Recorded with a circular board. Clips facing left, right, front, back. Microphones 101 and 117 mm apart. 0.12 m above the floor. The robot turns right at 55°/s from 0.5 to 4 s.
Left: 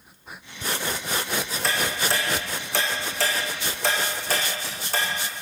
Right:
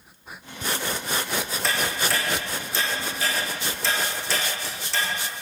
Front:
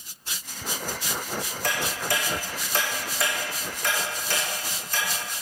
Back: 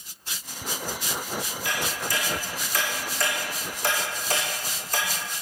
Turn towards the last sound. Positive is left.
turn(degrees=130)